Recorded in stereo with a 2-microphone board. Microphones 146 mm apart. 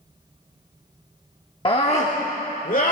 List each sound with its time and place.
1.6 s a scream: 35° left (ahead or behind), 0.9 m; by 2.9 s 65° left (ahead or behind), 2.0 m